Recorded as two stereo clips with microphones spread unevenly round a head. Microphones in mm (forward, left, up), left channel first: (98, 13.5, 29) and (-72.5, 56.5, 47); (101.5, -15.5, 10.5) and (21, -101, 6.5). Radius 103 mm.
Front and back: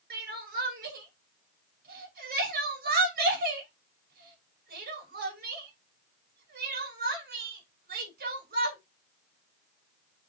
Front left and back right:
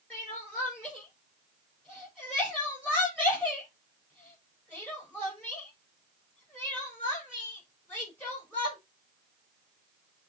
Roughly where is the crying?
Behind left.